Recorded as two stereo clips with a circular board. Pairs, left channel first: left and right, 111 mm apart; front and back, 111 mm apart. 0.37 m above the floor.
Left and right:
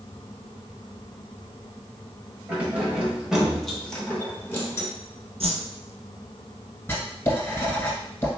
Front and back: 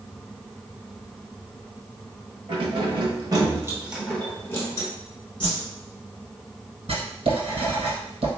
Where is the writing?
160° left, 1.4 m.